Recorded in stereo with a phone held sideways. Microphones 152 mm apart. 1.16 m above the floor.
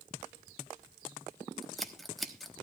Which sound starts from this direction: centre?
Scissors, at 1.6 s.